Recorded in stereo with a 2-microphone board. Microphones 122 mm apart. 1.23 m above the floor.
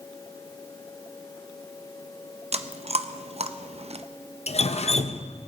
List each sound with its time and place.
2.5 s chewing: 55° right (ahead or behind), 0.6 m
4.5 s dripping: 55° left (ahead or behind), 0.6 m